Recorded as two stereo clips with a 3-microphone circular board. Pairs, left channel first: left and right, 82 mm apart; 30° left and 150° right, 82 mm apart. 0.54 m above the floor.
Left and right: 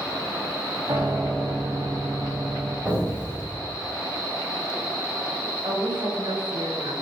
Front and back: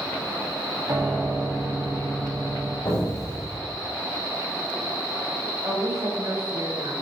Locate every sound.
0.9 s a piano: 105° right, 2 m
2.9 s an explosion: 15° right, 3 m
5.6 s a woman speaking: 115° right, 2 m